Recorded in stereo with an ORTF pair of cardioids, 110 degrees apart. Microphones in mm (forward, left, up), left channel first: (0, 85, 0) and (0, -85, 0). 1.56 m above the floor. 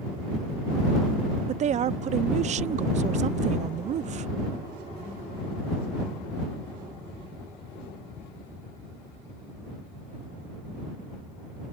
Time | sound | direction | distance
1.5 | a woman speaking | 45° right | ?